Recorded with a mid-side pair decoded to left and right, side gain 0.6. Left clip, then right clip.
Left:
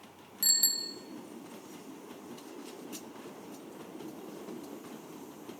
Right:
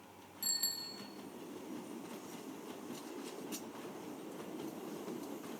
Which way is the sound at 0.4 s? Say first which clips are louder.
Left 9 dB; 50° left.